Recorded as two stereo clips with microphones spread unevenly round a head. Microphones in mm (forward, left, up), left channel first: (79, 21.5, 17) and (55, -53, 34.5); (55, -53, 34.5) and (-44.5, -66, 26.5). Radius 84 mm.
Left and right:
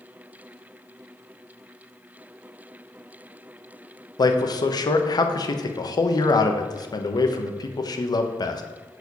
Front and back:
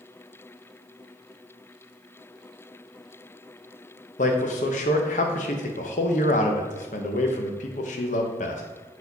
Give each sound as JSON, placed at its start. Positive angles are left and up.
{"t": 4.2, "sound": "a man speaking", "azimuth_deg": 30, "distance_m": 0.9}